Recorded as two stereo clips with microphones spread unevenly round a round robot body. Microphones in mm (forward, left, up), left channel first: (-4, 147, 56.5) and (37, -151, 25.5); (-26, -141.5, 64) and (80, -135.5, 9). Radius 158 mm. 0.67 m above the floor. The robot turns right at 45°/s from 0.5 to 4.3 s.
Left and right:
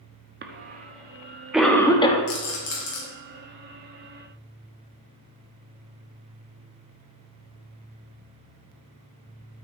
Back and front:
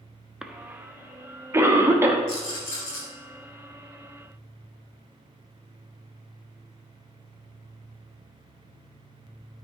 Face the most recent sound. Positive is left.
turn(degrees=-150)